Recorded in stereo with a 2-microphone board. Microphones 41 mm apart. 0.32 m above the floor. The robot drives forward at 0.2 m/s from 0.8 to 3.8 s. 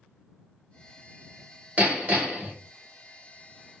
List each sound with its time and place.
1.8 s hammering: 40° right (ahead or behind), 1.5 m; by 2.5 s 35° right (ahead or behind), 1.6 m